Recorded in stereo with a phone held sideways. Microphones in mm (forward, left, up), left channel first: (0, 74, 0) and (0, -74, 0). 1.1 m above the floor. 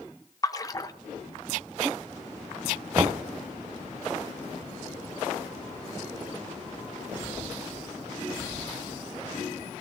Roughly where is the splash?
Left.